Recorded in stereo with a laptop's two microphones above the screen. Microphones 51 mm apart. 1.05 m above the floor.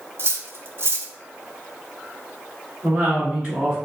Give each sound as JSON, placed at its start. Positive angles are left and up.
{"t": 0.2, "sound": "cutlery clinking", "side_deg": -55, "distance_m": 0.6}
{"t": 2.8, "sound": "a woman speaking", "side_deg": -25, "distance_m": 1.3}